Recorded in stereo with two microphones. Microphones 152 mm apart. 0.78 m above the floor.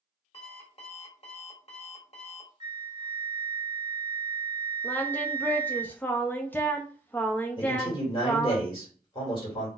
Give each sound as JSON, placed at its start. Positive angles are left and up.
{"t": 0.3, "sound": "an alarm clock", "side_deg": 40, "distance_m": 1.5}
{"t": 2.6, "sound": "a flute", "side_deg": -30, "distance_m": 0.6}
{"t": 4.8, "sound": "singing", "side_deg": 10, "distance_m": 0.5}
{"t": 7.6, "sound": "a man speaking", "side_deg": 35, "distance_m": 2.5}